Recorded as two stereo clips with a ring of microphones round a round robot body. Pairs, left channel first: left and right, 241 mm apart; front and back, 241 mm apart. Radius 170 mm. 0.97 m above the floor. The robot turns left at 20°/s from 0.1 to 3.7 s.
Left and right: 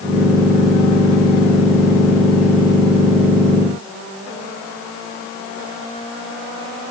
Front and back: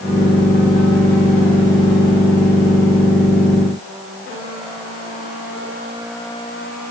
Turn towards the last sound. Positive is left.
No sound to turn to.